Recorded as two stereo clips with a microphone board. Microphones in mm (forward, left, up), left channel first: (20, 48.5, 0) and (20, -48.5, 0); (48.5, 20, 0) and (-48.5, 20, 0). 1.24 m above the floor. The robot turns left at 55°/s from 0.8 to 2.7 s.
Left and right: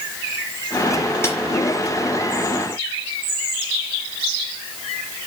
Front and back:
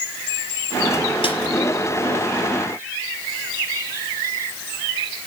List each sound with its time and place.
1.2 s a snare drum: 25° left, 4.5 m; by 1.4 s 20° left, 4.5 m